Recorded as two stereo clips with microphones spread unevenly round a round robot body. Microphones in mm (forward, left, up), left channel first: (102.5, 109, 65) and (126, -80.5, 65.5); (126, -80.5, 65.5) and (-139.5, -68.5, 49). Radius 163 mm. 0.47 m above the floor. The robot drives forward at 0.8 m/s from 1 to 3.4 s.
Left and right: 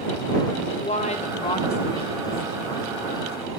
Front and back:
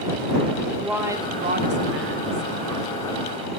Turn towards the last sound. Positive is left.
turn(degrees=170)